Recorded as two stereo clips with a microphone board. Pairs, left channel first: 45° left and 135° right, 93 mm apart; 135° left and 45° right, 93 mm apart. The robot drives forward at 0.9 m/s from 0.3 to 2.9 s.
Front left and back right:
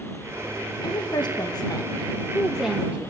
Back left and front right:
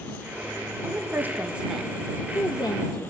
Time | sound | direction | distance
0.8 | a woman speaking | 15° left | 1.4 m